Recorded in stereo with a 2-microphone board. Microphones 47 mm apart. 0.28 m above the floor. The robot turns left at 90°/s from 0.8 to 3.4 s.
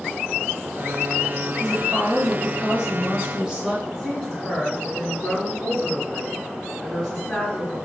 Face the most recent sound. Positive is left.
turn(degrees=20)  # may be behind; listen again after turning